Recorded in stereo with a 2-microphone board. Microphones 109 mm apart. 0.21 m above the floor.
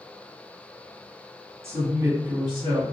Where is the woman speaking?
25° right (ahead or behind), 1.4 m; by 2.9 s 45° right (ahead or behind), 1.4 m.